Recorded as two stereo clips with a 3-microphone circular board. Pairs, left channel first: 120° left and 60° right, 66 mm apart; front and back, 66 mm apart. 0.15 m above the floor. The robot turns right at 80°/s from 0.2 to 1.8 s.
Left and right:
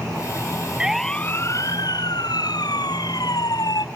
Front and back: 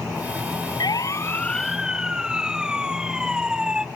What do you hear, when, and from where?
0.8 s a siren: 20° left; by 3.9 s 100° left